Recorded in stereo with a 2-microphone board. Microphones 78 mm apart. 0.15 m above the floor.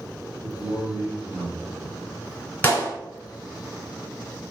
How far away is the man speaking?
About 1.7 m.